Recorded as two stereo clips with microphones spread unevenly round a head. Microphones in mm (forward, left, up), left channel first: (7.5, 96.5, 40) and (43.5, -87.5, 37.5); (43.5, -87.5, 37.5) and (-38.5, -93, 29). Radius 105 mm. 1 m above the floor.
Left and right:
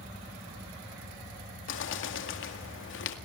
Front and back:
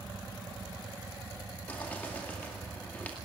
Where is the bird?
85° left, 2 m.